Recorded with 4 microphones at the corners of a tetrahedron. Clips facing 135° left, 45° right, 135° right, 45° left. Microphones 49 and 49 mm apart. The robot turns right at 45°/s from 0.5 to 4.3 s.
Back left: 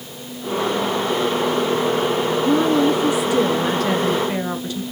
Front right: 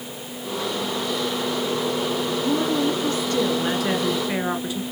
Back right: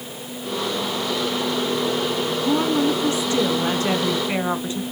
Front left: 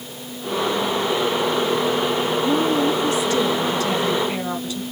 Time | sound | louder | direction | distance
2.4 | a woman speaking | back left 6 dB, back right 1 dB | 160° left | 1.5 m